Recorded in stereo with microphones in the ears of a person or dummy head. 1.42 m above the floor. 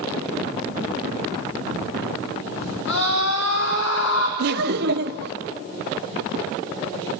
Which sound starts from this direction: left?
A scream, at 2.9 s.